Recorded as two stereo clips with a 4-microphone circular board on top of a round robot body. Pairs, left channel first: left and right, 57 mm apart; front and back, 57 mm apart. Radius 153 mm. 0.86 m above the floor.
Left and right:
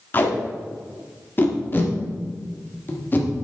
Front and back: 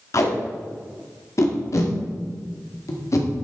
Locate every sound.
0.1 s tape being pulled: 35° left, 1.7 m